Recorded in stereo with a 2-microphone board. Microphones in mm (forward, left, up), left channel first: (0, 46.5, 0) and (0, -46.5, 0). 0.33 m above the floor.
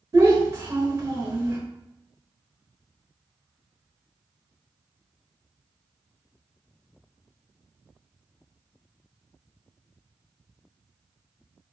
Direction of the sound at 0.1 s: 35° right (ahead or behind).